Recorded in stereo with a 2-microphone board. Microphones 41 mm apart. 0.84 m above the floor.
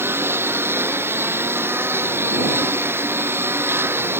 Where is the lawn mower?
70° right (ahead or behind).